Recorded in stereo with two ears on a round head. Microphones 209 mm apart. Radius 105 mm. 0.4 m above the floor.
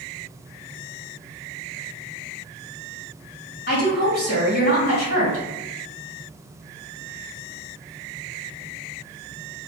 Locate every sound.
3.7 s a woman speaking: 45° left (ahead or behind), 2.0 m